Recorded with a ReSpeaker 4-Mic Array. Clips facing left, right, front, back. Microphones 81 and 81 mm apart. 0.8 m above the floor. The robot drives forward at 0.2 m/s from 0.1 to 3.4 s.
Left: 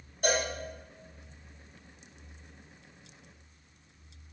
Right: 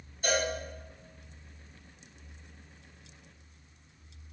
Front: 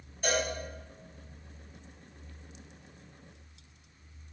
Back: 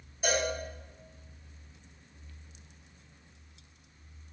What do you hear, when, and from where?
0.2 s a cowbell: 100° left, 1.6 m; by 0.5 s 105° left, 1.6 m